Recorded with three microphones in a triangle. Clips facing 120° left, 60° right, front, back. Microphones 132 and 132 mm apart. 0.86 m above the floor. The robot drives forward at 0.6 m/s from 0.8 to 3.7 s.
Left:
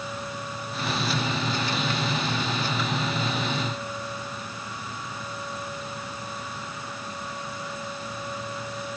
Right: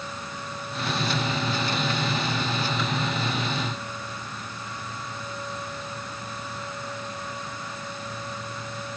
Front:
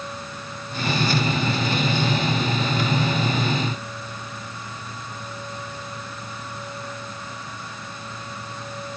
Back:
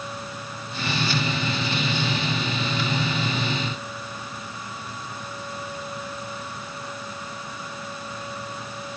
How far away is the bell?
No bell in this recording.